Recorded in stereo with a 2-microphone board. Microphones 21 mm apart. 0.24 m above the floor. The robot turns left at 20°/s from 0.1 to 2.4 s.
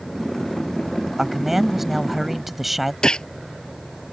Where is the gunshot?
40° left (ahead or behind).